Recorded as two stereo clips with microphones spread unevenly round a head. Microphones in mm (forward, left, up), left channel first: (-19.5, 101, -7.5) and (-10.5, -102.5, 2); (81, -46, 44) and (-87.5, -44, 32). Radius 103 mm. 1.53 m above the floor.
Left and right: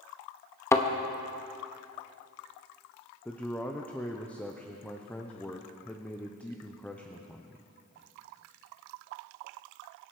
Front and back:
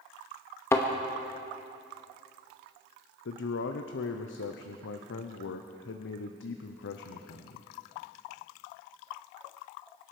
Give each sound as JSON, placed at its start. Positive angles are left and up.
{"t": 0.7, "sound": "a thud", "azimuth_deg": 35, "distance_m": 0.8}
{"t": 3.2, "sound": "a man speaking", "azimuth_deg": 10, "distance_m": 0.7}